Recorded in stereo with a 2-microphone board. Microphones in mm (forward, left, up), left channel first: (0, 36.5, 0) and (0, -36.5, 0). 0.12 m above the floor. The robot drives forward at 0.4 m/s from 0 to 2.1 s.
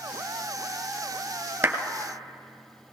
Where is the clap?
25° right (ahead or behind), 1.8 m.